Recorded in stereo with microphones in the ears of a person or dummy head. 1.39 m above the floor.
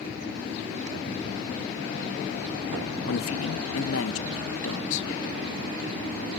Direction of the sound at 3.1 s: 75° left (ahead or behind).